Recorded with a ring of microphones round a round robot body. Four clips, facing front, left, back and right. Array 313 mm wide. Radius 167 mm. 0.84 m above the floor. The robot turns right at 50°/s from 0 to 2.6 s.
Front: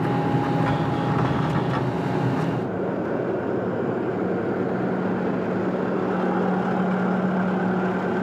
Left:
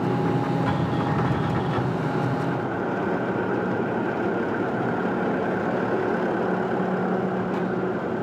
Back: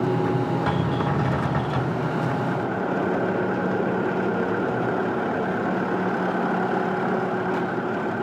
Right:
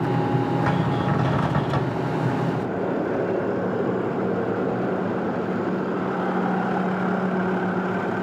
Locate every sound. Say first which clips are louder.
0.7 s a cupboard door: right 1 dB, even; 145° right, 6.5 m; by 2.0 s 80° right, 6.5 m